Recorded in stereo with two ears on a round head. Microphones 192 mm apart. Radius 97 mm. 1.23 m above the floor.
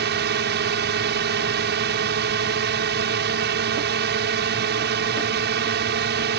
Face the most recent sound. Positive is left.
turn(degrees=-55)  # may be behind; listen again after turning